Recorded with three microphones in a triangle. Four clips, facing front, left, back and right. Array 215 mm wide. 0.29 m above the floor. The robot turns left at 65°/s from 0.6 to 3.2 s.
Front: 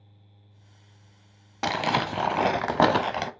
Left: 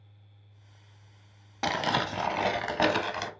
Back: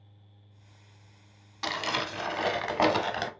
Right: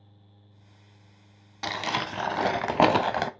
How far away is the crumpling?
About 0.7 m.